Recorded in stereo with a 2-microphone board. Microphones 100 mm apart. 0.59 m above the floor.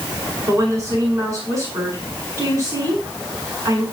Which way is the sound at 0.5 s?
30° right (ahead or behind).